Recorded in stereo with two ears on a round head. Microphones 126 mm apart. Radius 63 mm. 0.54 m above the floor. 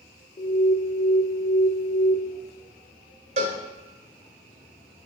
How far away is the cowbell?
About 1.8 m.